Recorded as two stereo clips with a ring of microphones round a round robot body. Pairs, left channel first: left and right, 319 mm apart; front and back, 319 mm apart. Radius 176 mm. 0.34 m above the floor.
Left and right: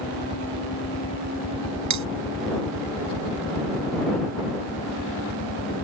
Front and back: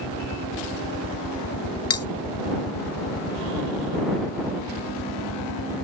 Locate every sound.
0.0 s a helicopter: 20° left; by 5.8 s 5° left
1.9 s cutlery clinking: 45° right